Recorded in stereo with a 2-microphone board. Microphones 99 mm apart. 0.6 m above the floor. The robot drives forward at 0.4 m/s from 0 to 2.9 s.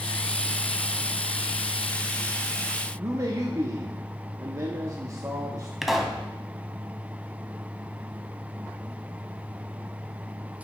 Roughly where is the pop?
Centre.